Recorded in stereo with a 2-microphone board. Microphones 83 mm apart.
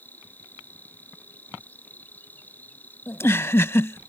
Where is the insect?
20° left (ahead or behind).